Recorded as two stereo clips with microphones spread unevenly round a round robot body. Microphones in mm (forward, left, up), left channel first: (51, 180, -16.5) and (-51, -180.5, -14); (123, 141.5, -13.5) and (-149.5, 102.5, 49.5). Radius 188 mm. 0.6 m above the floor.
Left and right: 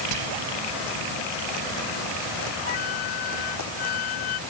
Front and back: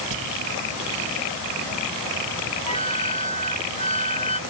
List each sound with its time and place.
0.1 s whispering: 135° right
2.7 s a flute: 80° left